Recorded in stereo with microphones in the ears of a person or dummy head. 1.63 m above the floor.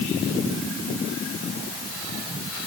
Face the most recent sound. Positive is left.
No sound to turn to.